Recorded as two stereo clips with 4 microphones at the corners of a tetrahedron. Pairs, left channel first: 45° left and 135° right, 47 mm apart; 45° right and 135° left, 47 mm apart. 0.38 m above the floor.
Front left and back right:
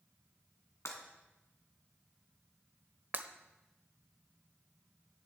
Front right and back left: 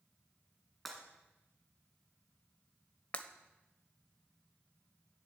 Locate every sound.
0.8 s breaking glass: 40° left, 2.5 m
3.1 s breaking glass: 100° right, 0.8 m